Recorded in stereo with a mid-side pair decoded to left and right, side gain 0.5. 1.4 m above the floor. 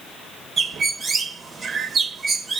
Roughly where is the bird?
Ahead right.